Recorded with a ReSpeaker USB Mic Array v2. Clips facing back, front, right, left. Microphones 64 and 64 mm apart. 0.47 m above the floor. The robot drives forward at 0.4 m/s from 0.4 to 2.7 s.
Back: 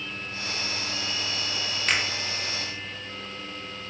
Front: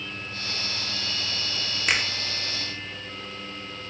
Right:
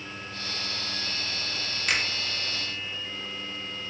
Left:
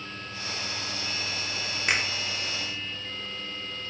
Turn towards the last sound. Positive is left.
turn(degrees=135)